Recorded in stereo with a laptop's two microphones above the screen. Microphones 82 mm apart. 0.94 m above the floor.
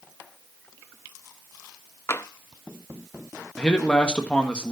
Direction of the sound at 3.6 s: 15° left (ahead or behind).